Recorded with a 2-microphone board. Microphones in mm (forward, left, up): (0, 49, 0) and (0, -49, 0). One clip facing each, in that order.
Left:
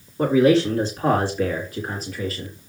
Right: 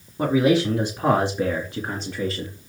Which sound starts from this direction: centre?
A man speaking, at 0.2 s.